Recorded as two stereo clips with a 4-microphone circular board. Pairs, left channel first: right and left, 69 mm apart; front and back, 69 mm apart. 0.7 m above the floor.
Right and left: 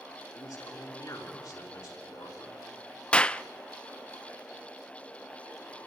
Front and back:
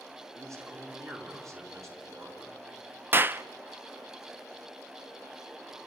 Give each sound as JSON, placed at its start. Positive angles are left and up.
{"t": 0.3, "sound": "a man speaking", "azimuth_deg": -135, "distance_m": 8.0}
{"t": 3.1, "sound": "a clap", "azimuth_deg": -155, "distance_m": 0.6}